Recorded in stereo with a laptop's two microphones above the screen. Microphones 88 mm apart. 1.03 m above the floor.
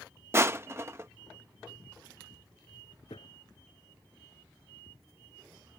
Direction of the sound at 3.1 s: 90° left.